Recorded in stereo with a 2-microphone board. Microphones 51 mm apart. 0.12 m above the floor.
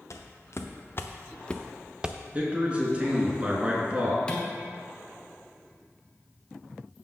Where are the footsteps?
65° left (ahead or behind), 1.4 m; by 2.2 s 25° right (ahead or behind), 0.7 m.